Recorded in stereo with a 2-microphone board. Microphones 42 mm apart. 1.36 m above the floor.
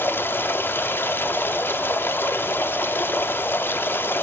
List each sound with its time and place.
0.0 s running water: 60° left (ahead or behind), 1.4 m